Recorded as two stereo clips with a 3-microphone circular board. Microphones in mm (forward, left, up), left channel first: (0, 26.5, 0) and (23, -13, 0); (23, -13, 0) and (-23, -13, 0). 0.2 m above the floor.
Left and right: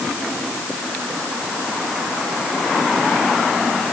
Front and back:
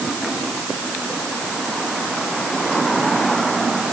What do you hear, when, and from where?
Only background noise.